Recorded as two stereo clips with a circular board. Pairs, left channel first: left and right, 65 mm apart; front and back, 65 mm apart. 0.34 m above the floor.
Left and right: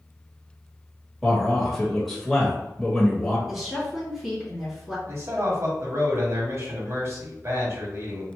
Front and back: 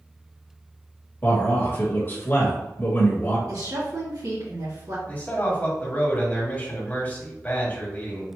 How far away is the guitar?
I don't hear a guitar.